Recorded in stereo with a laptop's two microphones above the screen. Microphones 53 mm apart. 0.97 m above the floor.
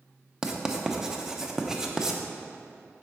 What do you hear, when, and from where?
0.4 s writing: 10° right (ahead or behind), 0.5 m